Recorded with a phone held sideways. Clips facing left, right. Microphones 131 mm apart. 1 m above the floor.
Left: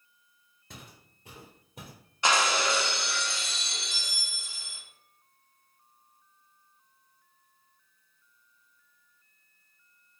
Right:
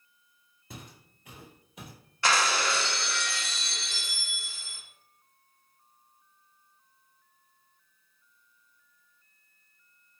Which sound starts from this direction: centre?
Footsteps, at 0.7 s.